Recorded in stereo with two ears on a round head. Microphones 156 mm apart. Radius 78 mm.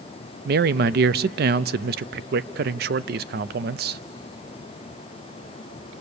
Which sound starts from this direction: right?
A man speaking, at 0.5 s.